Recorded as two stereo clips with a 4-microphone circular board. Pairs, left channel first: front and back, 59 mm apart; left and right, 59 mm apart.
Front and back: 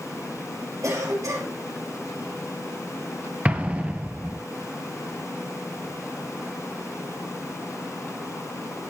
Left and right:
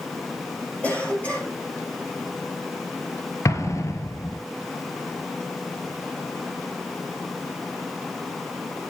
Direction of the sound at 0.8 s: 160° left.